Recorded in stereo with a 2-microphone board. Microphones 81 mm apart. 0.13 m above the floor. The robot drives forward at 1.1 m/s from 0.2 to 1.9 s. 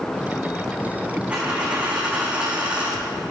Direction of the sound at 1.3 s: 15° right (ahead or behind).